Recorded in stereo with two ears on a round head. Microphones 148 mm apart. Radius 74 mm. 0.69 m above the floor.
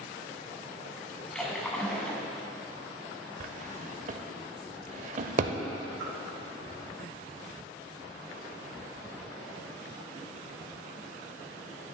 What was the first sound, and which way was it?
A splash, 5° left (ahead or behind).